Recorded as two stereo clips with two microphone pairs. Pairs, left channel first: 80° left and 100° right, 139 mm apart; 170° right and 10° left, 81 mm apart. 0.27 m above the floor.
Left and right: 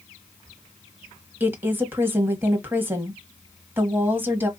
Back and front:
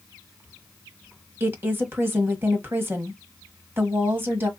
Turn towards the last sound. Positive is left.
turn(degrees=-30)